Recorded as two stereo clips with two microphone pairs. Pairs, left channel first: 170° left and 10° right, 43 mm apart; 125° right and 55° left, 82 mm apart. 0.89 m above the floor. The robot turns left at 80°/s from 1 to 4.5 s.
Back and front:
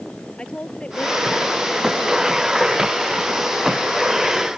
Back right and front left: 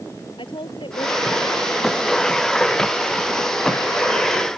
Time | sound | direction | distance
0.4 | a woman speaking | 125° right | ?